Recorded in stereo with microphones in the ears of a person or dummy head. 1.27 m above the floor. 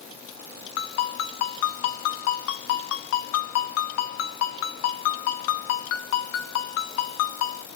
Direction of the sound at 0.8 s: 70° left (ahead or behind).